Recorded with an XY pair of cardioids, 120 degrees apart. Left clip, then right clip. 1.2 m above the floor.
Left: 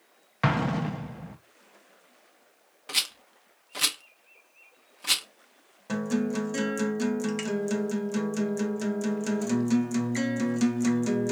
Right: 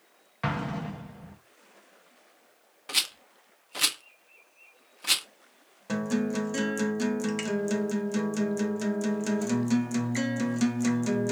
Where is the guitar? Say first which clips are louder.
Even; 5° right, 0.5 m.